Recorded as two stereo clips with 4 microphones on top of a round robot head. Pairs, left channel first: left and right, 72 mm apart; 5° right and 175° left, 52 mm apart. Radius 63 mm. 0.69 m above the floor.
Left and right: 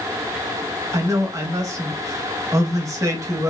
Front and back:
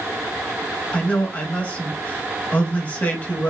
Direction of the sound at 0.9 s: 60° right.